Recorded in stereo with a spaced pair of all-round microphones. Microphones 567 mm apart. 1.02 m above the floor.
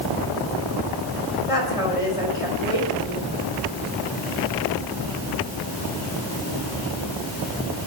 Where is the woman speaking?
85° left, 5 m.